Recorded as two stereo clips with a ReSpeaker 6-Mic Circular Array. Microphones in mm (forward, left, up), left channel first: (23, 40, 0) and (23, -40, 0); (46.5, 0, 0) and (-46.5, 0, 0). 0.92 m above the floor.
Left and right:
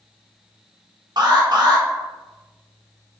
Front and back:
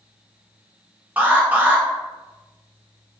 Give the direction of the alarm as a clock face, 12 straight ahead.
4 o'clock.